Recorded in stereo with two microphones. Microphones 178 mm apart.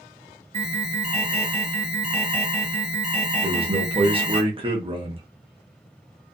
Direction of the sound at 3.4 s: 30° right (ahead or behind).